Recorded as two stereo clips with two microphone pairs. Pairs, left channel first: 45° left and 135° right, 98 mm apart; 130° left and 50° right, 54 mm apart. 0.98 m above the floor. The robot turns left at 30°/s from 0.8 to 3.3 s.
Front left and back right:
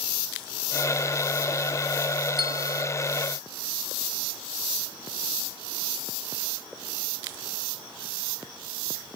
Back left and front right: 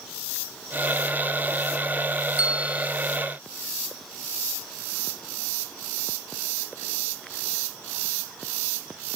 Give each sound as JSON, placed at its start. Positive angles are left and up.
{"t": 2.4, "sound": "a bell", "azimuth_deg": -110, "distance_m": 2.0}